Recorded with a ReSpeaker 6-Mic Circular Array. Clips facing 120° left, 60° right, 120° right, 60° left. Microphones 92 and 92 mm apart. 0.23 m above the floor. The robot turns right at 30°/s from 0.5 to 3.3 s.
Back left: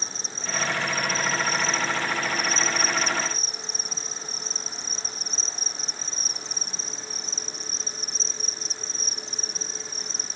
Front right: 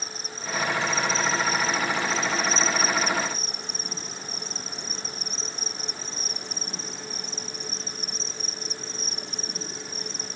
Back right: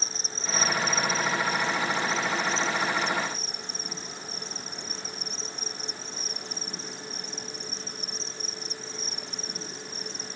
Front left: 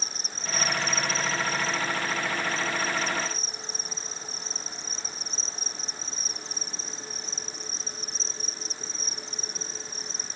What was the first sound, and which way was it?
An insect, 175° right.